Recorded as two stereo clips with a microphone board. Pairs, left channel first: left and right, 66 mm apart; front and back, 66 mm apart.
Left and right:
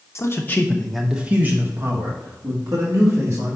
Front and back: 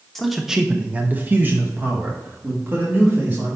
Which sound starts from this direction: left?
A man speaking, at 0.1 s.